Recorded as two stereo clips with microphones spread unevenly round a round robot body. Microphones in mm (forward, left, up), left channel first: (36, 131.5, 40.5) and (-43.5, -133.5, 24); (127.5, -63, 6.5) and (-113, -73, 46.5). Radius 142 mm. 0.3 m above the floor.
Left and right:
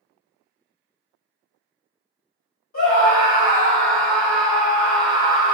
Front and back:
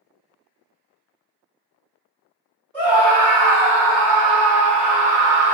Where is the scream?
85° left, 1.9 m.